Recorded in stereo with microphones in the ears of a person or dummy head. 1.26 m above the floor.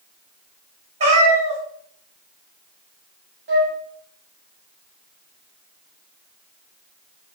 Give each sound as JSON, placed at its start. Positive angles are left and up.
{"t": 1.0, "sound": "a cat meowing", "side_deg": -40, "distance_m": 1.4}
{"t": 3.5, "sound": "a flute", "side_deg": -60, "distance_m": 1.4}